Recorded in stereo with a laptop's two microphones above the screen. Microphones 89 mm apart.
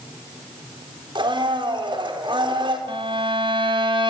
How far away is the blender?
About 4 m.